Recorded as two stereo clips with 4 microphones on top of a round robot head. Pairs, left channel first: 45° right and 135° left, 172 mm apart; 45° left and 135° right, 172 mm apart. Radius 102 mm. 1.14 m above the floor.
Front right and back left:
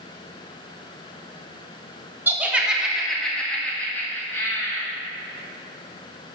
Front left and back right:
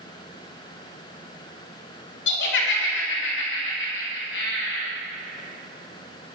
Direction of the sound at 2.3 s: 55° left.